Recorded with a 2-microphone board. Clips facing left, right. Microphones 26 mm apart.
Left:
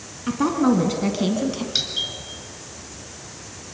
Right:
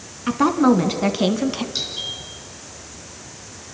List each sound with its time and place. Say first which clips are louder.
0.3 s a woman speaking: right 3 dB; 20° right (ahead or behind), 1.7 m; by 1.6 s 25° right (ahead or behind), 1.2 m
1.8 s a doorbell: left 2 dB; 35° left (ahead or behind), 3.5 m